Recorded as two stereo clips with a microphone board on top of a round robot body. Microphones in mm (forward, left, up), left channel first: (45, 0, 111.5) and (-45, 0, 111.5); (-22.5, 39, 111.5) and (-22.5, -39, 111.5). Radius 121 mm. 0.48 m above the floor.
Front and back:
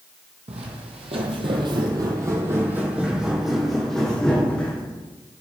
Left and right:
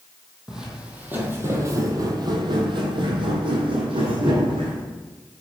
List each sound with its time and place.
0.5 s footsteps: 170° right, 1.3 m; by 4.8 s 75° right, 2.0 m